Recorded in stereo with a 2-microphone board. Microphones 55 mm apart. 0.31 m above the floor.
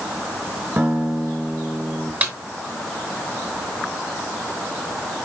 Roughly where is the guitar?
Right.